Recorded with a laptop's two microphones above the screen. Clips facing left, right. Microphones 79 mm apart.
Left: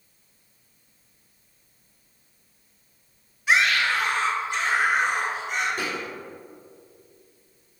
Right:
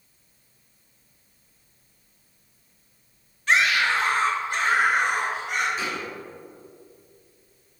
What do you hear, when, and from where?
3.5 s a scream: 10° left (ahead or behind), 1.0 m; by 5.7 s 70° right (ahead or behind), 3 m
5.8 s a thud: 60° left (ahead or behind), 3 m